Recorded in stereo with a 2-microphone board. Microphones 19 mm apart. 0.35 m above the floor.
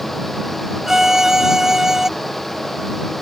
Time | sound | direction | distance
0.9 | a violin | 20° right (ahead or behind) | ?